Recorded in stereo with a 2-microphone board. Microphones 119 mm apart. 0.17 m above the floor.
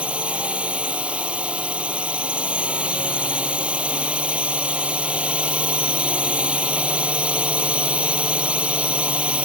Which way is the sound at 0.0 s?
10° right (ahead or behind).